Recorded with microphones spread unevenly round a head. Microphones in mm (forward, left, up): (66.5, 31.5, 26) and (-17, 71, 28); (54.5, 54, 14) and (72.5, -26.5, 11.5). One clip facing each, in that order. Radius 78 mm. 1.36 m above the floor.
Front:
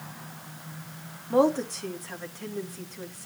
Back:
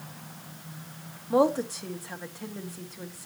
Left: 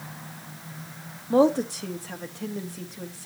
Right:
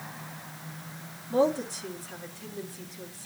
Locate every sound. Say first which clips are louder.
1.3 s a woman speaking: front 1 dB, left 5 dB; 75° left, 2 m